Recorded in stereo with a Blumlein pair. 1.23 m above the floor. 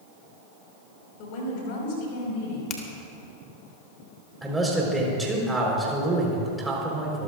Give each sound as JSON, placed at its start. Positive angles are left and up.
{"t": 1.2, "sound": "a woman speaking", "azimuth_deg": 40, "distance_m": 5.0}
{"t": 2.7, "sound": "a finger snap", "azimuth_deg": 30, "distance_m": 1.9}
{"t": 4.4, "sound": "a man speaking", "azimuth_deg": -5, "distance_m": 4.5}